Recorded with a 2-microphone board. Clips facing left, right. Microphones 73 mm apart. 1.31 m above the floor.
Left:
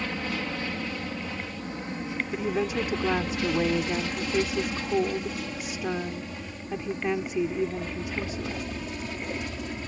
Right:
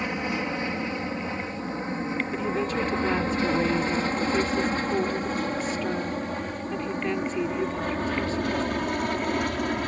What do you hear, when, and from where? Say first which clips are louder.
0.0 s an aircraft: right 3 dB; 20° right (ahead or behind); by 9.9 s 60° right (ahead or behind)
2.3 s a woman speaking: left 2 dB; 10° left (ahead or behind)